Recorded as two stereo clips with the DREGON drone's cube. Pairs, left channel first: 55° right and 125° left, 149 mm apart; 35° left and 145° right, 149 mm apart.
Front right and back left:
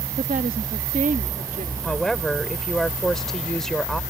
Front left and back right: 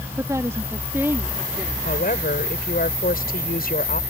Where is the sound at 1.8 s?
30° left.